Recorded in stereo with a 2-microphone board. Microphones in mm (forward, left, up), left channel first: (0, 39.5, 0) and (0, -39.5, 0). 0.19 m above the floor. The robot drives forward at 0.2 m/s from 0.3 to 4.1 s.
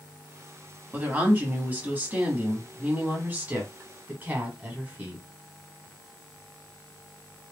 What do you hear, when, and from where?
0.9 s a woman speaking: 25° right (ahead or behind), 1.2 m; by 5.2 s 20° right (ahead or behind), 1.4 m